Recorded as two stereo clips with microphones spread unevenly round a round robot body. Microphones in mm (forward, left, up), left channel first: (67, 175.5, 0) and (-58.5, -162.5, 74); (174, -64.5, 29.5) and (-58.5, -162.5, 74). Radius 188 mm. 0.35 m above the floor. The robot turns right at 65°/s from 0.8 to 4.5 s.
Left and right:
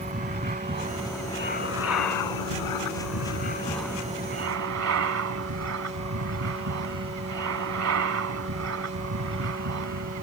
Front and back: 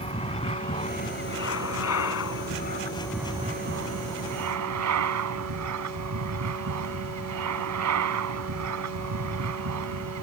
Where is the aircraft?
40° right; by 10.2 s 160° right.